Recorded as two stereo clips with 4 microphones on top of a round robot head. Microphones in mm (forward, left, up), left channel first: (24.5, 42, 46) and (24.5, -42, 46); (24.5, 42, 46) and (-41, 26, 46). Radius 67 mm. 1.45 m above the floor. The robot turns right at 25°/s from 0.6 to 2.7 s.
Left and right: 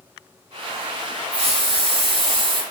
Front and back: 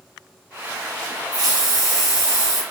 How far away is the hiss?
About 2 m.